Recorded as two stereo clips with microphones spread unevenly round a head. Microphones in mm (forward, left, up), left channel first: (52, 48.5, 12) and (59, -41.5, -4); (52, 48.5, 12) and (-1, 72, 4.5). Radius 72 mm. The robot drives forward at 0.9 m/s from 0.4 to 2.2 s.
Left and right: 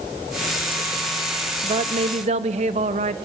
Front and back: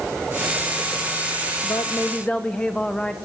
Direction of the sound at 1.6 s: 60° right.